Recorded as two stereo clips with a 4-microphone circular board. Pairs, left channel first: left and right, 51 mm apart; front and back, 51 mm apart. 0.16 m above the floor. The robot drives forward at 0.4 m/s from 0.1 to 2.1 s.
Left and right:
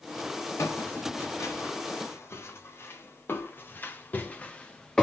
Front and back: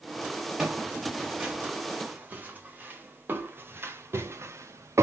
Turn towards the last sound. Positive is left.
turn(degrees=165)